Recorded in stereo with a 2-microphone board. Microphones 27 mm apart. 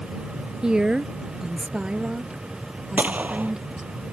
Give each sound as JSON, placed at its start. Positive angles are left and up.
{"t": 0.6, "sound": "a woman speaking", "side_deg": -30}
{"t": 3.0, "sound": "a gunshot", "side_deg": -75}